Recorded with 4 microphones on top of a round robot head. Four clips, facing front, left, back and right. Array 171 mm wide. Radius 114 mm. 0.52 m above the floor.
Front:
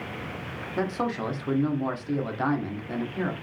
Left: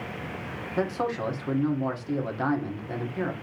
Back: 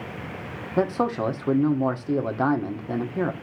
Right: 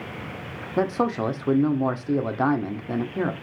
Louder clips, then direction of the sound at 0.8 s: Right 5 dB, back 5 dB; 135° right.